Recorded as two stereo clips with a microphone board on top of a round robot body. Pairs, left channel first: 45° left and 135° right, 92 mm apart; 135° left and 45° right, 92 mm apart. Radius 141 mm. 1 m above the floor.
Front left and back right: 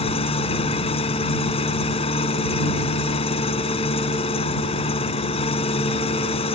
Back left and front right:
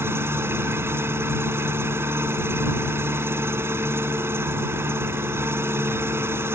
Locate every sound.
0.0 s an engine running: 25° left